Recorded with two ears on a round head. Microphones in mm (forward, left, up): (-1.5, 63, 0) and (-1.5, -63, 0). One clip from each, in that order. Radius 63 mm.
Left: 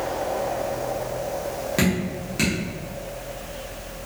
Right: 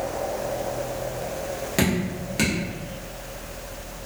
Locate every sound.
1.8 s dripping: 10° right (ahead or behind), 0.9 m